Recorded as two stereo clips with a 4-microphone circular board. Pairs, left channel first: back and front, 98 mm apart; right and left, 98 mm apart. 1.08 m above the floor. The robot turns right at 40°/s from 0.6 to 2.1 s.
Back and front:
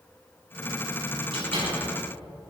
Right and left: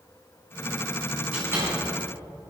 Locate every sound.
1.3 s a door slam: 20° left, 5.5 m; by 1.8 s 35° left, 5.5 m